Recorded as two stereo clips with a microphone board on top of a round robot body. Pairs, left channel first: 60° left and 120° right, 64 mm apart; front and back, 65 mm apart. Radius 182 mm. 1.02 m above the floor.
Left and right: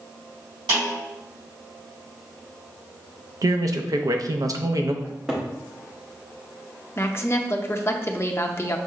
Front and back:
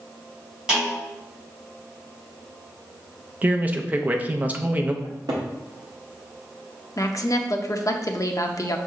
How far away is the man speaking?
About 0.7 m.